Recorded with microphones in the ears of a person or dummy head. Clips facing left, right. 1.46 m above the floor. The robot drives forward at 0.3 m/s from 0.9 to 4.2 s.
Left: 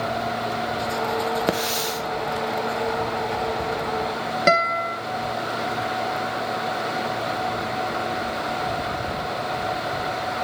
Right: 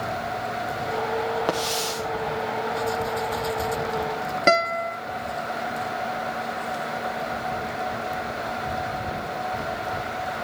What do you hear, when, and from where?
1.5 s a hiss: 30° left (ahead or behind), 0.9 m; by 2.0 s 25° left (ahead or behind), 1.1 m
4.5 s a guitar: 5° left (ahead or behind), 0.9 m